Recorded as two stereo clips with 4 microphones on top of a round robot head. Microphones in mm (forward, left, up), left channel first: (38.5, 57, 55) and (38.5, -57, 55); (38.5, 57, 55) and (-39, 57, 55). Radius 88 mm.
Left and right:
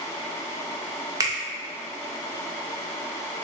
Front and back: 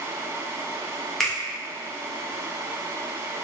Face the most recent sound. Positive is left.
turn(degrees=-80)